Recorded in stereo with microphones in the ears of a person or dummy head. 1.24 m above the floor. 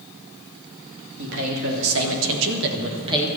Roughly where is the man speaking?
Right.